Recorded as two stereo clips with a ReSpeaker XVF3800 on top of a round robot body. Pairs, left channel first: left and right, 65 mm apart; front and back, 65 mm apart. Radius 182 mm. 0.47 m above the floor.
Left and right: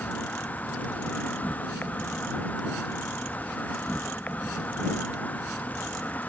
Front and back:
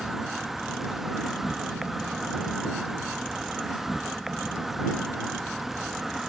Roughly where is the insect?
Left.